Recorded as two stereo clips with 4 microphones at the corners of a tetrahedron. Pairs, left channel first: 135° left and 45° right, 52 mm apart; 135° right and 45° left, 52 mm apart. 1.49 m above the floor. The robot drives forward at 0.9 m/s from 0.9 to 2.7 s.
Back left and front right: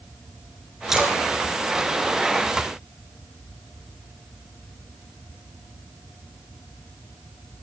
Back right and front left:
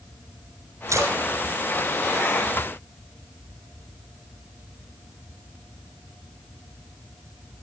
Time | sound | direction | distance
0.9 | a splash | 35° left | 5 m